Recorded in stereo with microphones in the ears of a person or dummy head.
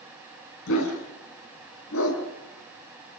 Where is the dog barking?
75° left (ahead or behind), 4.5 m.